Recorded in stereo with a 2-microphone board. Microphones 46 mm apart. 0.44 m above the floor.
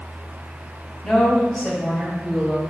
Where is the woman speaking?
15° left (ahead or behind), 3 m; by 2.6 s 10° right (ahead or behind), 2.5 m.